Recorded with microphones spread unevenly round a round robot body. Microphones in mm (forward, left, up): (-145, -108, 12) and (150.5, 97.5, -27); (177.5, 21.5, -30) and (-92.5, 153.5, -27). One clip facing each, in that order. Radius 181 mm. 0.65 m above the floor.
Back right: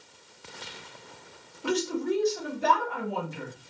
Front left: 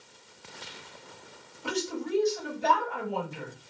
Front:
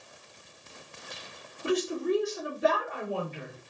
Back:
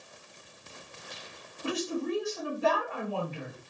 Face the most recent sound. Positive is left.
turn(degrees=-160)